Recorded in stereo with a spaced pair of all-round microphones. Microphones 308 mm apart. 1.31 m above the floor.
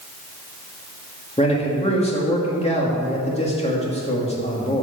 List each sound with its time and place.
1.4 s a man speaking: 20° left (ahead or behind), 2.5 m